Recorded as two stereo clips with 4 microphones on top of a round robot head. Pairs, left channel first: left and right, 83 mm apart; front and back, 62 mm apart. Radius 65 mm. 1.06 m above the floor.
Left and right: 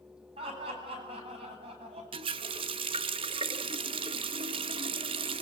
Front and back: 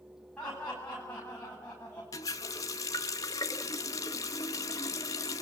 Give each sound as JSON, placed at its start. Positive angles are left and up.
{"t": 0.4, "sound": "laughter", "azimuth_deg": -80, "distance_m": 9.5}
{"t": 2.1, "sound": "a running tap", "azimuth_deg": -55, "distance_m": 0.7}